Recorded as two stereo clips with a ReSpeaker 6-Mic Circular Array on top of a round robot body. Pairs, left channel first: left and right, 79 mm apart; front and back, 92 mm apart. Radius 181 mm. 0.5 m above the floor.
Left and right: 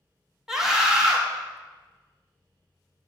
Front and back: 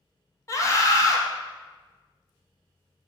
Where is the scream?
10° right, 1.1 m.